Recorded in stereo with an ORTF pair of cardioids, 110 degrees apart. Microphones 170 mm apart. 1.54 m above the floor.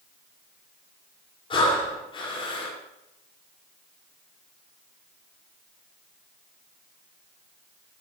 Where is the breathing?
30° left, 5.5 m.